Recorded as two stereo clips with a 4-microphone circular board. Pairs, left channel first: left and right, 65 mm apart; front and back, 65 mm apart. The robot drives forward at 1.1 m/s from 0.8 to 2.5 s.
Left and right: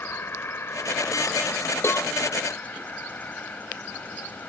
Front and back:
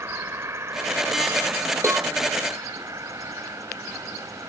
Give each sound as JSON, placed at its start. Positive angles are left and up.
{"t": 0.0, "sound": "an insect", "azimuth_deg": 140}
{"t": 1.8, "sound": "a cowbell", "azimuth_deg": 140}